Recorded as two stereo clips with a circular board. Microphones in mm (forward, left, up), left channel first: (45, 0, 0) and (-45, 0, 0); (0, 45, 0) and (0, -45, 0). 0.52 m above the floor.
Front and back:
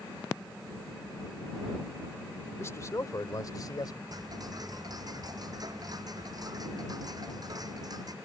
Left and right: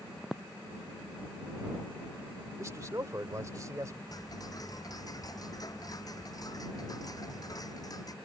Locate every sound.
2.6 s a man speaking: 50° right; by 4.0 s 40° right
4.1 s ticking: 135° left